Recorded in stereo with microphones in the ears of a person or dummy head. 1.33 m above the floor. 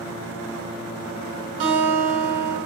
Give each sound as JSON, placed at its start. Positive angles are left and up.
{"t": 1.6, "sound": "a guitar", "side_deg": -40, "distance_m": 0.8}